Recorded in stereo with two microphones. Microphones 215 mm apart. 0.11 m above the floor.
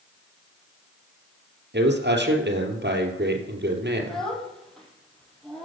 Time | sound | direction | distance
1.7 | a man speaking | 55° right (ahead or behind) | 2.5 m
4.0 | a child speaking | centre (ahead or behind) | 3 m